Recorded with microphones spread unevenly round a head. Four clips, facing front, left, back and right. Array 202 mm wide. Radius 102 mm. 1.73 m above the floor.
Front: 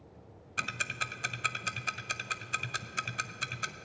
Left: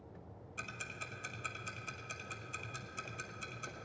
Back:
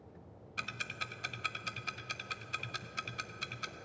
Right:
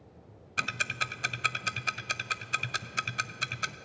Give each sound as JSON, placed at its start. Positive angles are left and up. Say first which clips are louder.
{"t": 0.6, "sound": "ticking", "louder": "right 13 dB, front 6 dB", "azimuth_deg": -65, "distance_m": 0.5}